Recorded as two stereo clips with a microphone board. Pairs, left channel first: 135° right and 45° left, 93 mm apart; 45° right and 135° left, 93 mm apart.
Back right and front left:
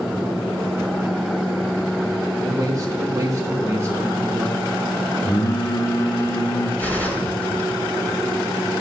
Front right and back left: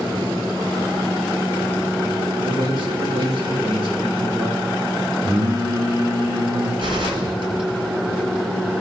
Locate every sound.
2.4 s a man speaking: 95° left, 1.5 m; by 4.7 s 110° left, 2.5 m
5.2 s singing: 175° left, 1.7 m
6.8 s a gunshot: 150° left, 3 m